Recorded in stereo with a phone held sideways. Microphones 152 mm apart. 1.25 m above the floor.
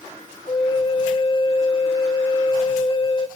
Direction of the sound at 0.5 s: 40° left (ahead or behind).